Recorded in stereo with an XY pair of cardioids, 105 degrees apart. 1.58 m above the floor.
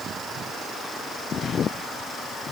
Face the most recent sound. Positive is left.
No sound to turn to.